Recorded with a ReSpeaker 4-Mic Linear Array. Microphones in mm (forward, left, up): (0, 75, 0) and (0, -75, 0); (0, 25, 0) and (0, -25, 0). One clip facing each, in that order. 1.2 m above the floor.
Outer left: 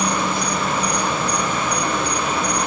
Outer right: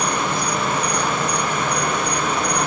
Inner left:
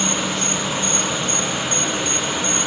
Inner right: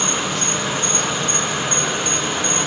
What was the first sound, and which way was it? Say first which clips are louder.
An insect: outer left 1 dB, even; 60° right (ahead or behind).